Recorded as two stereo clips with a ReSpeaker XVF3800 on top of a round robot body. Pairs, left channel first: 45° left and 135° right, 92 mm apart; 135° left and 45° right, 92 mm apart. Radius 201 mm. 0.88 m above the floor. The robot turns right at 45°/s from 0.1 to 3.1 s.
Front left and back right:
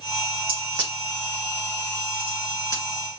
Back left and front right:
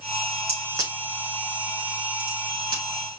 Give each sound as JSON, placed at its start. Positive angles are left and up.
{"t": 0.5, "sound": "a crack", "azimuth_deg": -110, "distance_m": 3.5}